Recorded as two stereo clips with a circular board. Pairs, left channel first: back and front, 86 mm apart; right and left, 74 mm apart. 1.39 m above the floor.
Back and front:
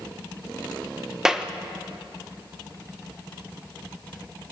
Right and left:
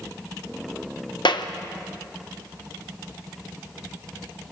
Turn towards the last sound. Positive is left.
turn(degrees=-85)